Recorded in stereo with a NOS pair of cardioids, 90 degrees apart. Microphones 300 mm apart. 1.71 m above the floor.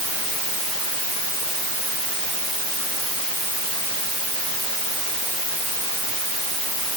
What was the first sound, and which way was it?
Only background noise.